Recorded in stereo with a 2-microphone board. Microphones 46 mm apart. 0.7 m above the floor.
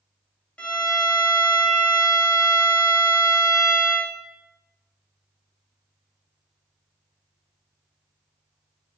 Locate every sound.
0.6 s a violin: 25° left (ahead or behind), 0.7 m